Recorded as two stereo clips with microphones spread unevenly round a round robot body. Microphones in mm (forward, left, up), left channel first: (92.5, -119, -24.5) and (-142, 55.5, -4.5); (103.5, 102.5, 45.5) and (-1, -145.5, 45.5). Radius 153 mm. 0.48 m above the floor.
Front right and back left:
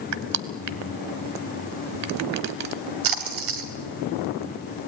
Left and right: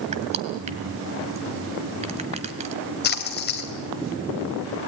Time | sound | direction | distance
0.1 | crushing | straight behind | 1.2 m
3.0 | a splash | 120° left | 2.5 m